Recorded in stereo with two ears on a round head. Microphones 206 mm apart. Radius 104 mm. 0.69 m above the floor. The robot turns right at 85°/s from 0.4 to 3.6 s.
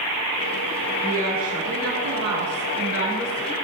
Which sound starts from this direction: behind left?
A woman speaking, at 1.0 s.